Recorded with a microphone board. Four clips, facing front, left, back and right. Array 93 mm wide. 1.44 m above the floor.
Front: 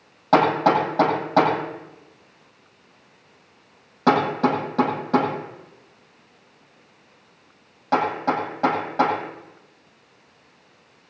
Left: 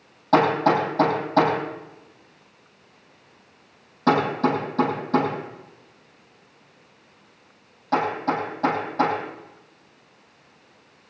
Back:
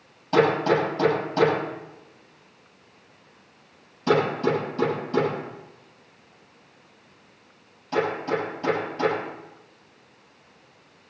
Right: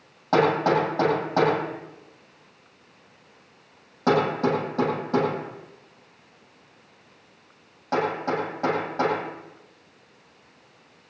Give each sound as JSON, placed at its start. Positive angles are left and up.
{"t": 0.3, "sound": "hammering", "azimuth_deg": -10, "distance_m": 9.0}